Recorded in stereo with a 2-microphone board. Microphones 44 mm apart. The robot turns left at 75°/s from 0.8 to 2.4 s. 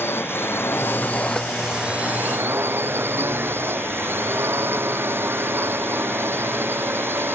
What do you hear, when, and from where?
0.0 s a drone: 60° left; by 7.4 s 60° right